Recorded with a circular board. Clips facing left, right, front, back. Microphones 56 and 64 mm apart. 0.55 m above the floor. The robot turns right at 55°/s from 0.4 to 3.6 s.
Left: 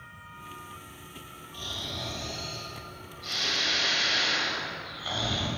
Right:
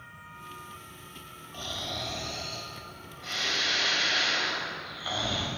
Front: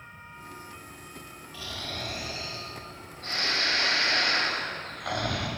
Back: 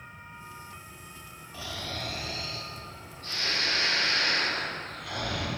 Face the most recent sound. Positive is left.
turn(degrees=-5)